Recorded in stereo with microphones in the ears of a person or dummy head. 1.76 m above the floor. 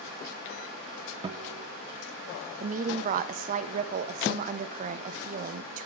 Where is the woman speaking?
40° right (ahead or behind), 0.7 m.